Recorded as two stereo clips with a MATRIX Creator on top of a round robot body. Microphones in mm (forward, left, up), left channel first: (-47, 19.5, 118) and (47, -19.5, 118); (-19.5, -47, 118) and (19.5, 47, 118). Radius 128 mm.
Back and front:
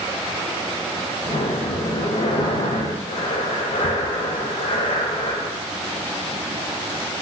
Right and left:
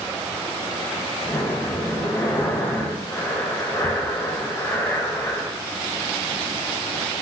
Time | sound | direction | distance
1.2 | breathing | straight behind | 0.6 m